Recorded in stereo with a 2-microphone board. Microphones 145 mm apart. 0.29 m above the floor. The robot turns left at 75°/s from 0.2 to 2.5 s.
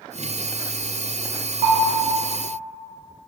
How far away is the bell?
About 1.0 m.